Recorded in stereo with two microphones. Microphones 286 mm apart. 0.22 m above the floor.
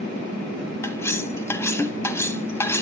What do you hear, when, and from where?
0.8 s cutlery clinking: 10° left (ahead or behind), 0.9 m